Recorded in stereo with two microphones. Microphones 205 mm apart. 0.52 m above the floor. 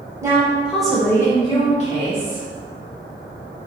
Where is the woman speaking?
15° right (ahead or behind), 1.5 m; by 2.5 s 45° left (ahead or behind), 1.4 m.